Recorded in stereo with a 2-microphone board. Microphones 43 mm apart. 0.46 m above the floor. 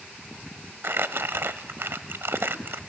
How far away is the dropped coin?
No dropped coin in this recording.